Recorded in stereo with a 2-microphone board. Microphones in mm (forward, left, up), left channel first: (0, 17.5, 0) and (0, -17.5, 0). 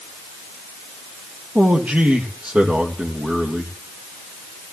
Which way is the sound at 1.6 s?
50° right (ahead or behind).